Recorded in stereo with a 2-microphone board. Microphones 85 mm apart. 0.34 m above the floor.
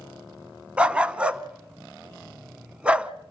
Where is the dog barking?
15° right (ahead or behind), 0.6 m.